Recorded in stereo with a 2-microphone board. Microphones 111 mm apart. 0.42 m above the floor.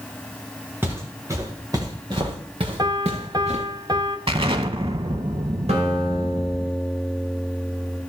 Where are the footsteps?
20° right (ahead or behind), 3.5 m; by 3.6 s 80° right, 2.5 m.